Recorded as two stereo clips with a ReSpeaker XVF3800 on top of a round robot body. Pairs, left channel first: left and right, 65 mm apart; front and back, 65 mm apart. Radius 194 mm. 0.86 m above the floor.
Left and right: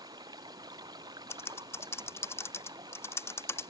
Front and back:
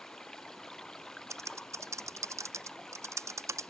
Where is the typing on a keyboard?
140° left.